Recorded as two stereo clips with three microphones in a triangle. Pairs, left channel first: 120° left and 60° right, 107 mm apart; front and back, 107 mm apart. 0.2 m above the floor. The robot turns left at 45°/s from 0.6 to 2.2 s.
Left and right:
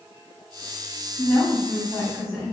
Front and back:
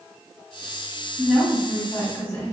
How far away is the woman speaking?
About 1.4 m.